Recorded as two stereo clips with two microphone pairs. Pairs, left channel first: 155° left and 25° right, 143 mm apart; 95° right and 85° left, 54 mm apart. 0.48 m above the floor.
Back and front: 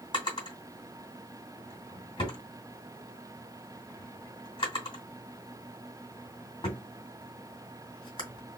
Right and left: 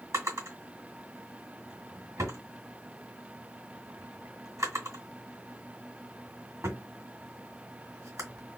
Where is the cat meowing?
No cat meowing in this recording.